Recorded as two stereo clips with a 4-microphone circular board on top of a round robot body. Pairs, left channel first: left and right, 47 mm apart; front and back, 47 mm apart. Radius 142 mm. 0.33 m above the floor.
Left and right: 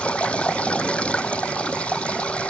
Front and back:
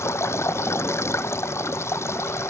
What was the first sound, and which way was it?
Running water, 25° left.